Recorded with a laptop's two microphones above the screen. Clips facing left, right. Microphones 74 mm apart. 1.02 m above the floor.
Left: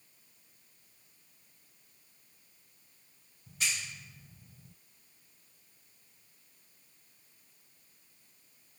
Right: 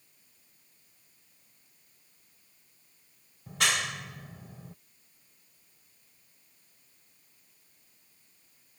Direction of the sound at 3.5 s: 75° right (ahead or behind).